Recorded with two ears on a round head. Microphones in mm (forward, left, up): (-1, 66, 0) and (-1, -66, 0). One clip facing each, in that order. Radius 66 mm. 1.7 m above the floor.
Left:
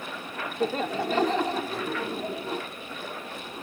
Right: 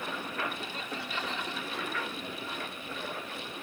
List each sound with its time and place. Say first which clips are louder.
0.6 s laughter: left 12 dB; 45° left (ahead or behind); by 2.6 s 30° left (ahead or behind)